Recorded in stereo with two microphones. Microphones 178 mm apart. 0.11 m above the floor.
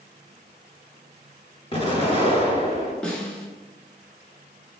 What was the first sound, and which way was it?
An explosion, 30° left (ahead or behind).